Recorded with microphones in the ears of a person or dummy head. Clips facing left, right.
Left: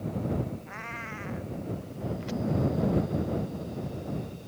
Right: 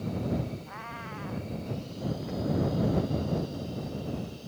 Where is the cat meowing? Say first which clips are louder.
Left 1 dB; 30° left (ahead or behind).